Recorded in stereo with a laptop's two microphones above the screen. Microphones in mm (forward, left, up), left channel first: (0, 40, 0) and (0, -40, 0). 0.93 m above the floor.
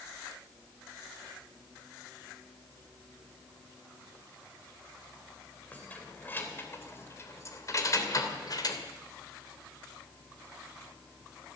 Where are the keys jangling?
20° left (ahead or behind), 3 m; by 8.8 s 55° left (ahead or behind), 2.5 m.